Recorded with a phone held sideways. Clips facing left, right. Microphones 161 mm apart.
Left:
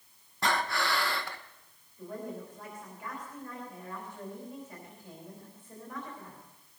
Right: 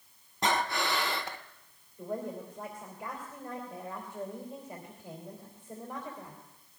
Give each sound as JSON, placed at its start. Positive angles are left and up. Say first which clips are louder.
{"t": 0.4, "sound": "breathing", "louder": "right 1 dB", "side_deg": -20, "distance_m": 0.7}
{"t": 2.0, "sound": "a woman speaking", "louder": "right 3 dB", "side_deg": -30, "distance_m": 3.0}